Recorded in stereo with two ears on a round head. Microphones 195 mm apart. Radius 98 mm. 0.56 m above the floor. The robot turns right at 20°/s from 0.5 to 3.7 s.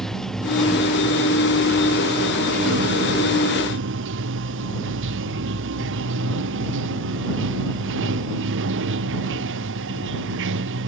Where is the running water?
Straight behind; by 10.9 s 120° right.